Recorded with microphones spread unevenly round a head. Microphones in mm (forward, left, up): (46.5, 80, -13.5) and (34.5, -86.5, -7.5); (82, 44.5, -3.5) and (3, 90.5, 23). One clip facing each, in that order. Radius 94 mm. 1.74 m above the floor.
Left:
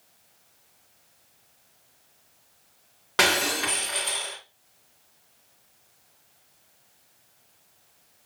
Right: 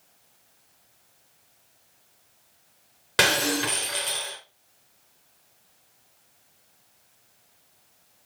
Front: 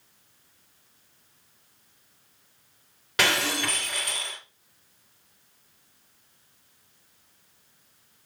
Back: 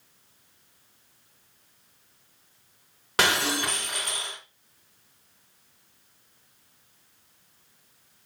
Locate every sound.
3.2 s breaking glass: 165° right, 3 m